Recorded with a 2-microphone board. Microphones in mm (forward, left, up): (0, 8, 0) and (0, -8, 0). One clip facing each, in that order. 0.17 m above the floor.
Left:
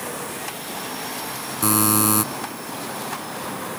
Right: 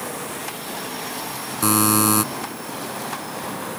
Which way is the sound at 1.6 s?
10° right (ahead or behind).